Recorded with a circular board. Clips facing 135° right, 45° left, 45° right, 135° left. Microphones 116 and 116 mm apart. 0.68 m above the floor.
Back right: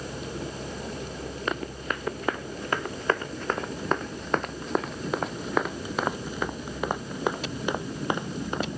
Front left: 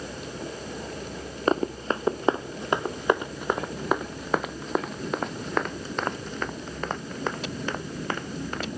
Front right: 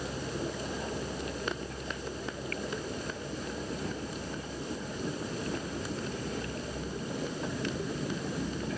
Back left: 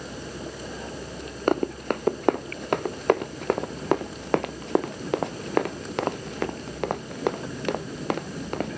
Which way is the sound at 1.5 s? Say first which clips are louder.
Front left 8 dB, back left 13 dB; 100° left.